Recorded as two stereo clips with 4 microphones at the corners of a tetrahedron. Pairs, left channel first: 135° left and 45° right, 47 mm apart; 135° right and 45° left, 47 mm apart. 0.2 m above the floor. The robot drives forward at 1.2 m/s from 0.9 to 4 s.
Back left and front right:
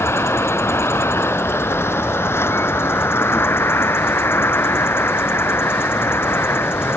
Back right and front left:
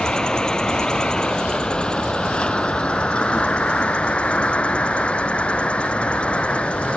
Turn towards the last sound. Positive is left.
turn(degrees=165)